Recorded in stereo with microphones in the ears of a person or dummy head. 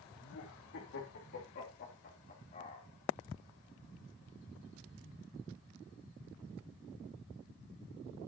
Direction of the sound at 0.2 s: 70° left (ahead or behind).